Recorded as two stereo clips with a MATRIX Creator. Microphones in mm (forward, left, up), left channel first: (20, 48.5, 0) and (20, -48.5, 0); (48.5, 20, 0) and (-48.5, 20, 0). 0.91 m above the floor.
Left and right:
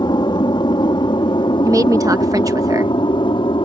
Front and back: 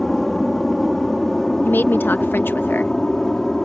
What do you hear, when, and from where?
0.0 s an aircraft: 90° left; by 3.7 s 85° left
1.6 s a woman speaking: 55° right